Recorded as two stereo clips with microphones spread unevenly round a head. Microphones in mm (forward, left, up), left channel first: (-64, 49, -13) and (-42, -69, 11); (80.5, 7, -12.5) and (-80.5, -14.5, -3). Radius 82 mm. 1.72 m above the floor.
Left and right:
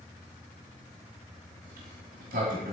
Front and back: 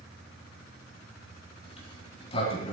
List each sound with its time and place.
1.6 s a sliding door: 50° right, 4 m